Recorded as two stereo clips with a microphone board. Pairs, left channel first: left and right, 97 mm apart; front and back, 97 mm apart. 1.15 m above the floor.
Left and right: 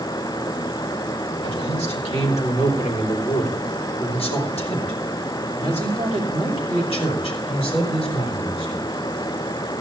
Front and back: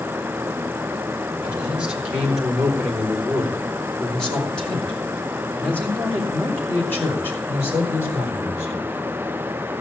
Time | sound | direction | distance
1.4 | a man speaking | 105° left | 4 m